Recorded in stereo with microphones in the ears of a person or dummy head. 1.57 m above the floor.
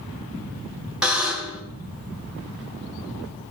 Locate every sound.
1.0 s a buzzer: 5° right (ahead or behind), 1.7 m